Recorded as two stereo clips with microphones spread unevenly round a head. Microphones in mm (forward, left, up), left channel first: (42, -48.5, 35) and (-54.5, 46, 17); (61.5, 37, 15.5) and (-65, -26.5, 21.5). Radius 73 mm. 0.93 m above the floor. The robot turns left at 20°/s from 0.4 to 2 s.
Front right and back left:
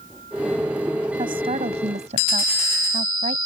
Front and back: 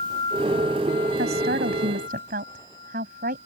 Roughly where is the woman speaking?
Behind.